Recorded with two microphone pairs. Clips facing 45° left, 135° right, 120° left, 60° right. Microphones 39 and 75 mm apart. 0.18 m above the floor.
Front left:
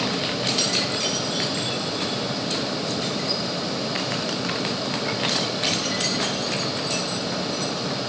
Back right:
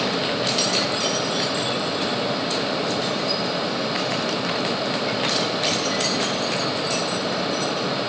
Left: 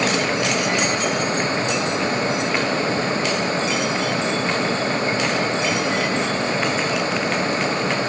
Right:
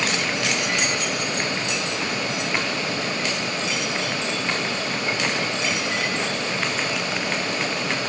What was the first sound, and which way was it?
Only background noise.